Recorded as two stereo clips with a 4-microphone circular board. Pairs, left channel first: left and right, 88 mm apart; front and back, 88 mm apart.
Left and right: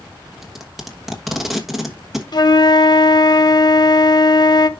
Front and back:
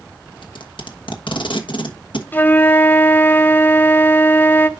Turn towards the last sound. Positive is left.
turn(degrees=65)